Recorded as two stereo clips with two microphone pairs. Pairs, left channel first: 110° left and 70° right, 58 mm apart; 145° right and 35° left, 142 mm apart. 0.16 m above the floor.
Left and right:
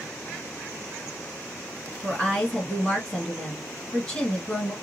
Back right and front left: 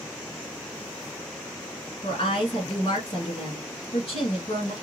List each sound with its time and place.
2.0 s a woman speaking: 175° right, 2.5 m